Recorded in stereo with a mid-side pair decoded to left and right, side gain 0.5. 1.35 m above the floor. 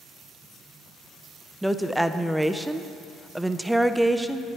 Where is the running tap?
No running tap in this recording.